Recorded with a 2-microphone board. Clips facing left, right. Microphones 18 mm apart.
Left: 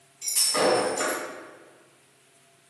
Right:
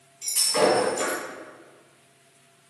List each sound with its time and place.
0.2 s breaking glass: 5° right (ahead or behind), 1.9 m